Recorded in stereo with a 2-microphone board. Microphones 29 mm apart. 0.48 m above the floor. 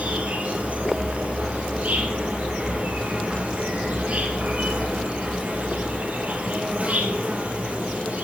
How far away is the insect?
About 1.6 m.